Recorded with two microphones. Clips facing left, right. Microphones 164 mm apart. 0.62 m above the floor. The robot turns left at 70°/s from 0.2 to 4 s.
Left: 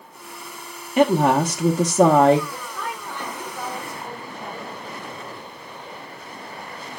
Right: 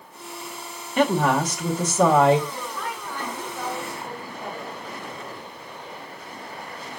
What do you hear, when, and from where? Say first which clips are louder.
1.0 s a woman speaking: left 4 dB; 160° left, 0.7 m; by 2.4 s 60° left, 0.7 m
2.5 s a woman speaking: even; 125° left, 3.5 m; by 5.0 s 20° left, 3.5 m